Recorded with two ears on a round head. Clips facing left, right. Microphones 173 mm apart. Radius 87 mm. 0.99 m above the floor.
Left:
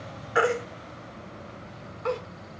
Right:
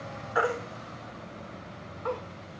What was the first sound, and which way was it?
A baby crying, 30° left (ahead or behind).